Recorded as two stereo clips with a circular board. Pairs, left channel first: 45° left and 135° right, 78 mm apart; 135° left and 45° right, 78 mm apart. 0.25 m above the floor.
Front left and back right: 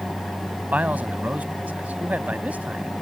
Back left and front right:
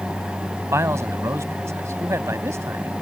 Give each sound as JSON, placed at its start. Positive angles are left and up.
{"t": 0.7, "sound": "a man speaking", "azimuth_deg": -75}